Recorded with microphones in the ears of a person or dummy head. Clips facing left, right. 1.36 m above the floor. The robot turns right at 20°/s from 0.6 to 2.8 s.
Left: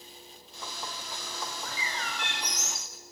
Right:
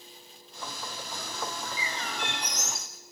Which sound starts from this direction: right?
A bird, at 1.6 s.